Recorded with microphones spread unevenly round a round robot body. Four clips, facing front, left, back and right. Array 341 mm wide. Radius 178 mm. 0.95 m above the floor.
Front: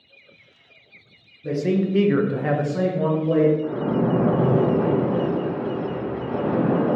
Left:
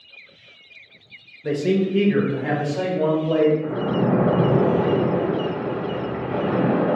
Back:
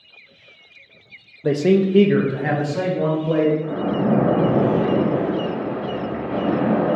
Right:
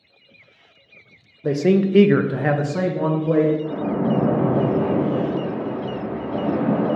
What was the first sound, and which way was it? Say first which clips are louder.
A man speaking: right 3 dB, back 5 dB; 160° right.